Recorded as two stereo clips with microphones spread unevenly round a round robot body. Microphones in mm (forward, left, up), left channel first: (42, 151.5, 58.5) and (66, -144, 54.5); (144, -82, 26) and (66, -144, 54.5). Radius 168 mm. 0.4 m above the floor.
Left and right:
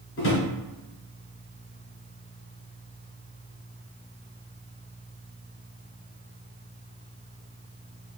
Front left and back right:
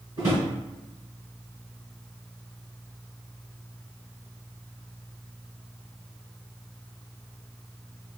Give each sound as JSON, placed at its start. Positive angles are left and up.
{"t": 0.2, "sound": "a drawer", "azimuth_deg": 140, "distance_m": 0.9}